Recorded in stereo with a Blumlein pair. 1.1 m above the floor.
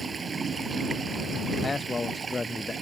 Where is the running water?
20° right.